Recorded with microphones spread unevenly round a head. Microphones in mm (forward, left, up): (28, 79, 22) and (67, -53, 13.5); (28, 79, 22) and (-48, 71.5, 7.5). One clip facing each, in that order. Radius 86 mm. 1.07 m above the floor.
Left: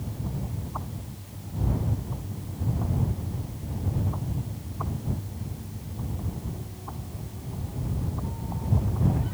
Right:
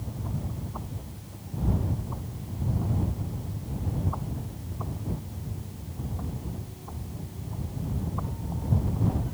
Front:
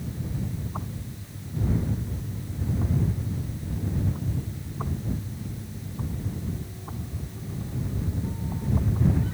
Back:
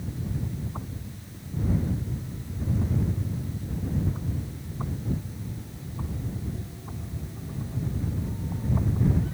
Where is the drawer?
I don't hear a drawer.